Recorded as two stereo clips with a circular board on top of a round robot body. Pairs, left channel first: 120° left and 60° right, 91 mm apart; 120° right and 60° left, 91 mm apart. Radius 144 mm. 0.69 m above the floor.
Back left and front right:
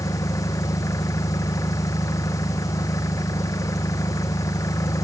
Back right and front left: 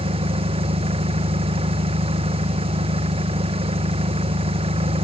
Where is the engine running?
65° left.